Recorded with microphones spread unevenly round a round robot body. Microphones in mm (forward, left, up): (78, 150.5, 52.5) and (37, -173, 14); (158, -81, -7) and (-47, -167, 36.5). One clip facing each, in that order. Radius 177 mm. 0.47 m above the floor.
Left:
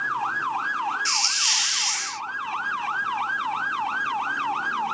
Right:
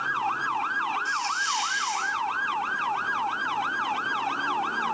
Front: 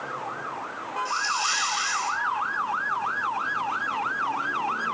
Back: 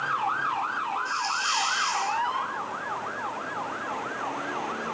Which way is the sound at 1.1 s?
100° left.